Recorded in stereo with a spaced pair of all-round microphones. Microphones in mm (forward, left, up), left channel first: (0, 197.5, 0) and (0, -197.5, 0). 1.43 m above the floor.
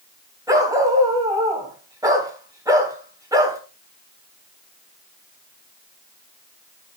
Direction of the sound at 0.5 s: 10° right (ahead or behind).